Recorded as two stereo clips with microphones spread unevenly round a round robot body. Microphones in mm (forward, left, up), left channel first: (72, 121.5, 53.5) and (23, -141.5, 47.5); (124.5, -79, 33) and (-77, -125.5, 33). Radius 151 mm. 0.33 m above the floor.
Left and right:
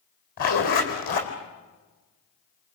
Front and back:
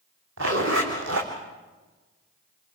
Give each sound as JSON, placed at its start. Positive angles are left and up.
{"t": 0.4, "sound": "a zipper", "azimuth_deg": 140, "distance_m": 3.5}